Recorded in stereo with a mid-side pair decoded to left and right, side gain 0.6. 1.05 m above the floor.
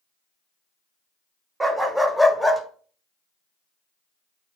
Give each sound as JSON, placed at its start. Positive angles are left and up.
{"t": 1.6, "sound": "a dog barking", "azimuth_deg": -15, "distance_m": 1.9}